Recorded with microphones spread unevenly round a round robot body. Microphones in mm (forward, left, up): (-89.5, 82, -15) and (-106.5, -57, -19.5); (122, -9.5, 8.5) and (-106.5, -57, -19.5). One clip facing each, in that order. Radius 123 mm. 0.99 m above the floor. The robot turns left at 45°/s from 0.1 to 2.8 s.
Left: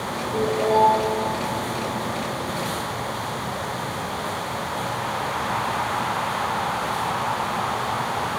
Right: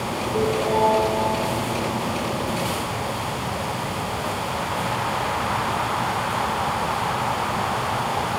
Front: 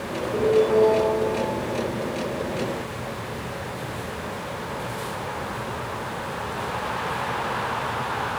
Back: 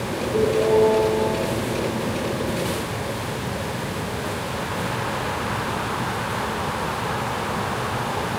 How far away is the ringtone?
About 7 m.